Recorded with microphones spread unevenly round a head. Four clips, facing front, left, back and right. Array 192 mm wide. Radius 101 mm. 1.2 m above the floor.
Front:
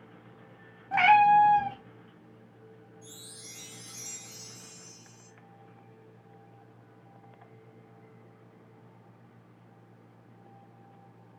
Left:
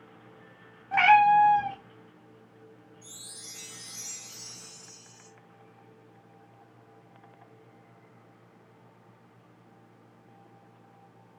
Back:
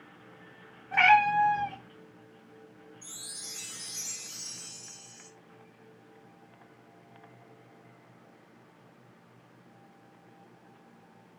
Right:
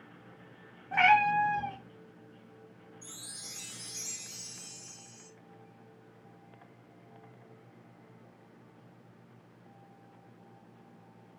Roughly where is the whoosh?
I don't hear a whoosh.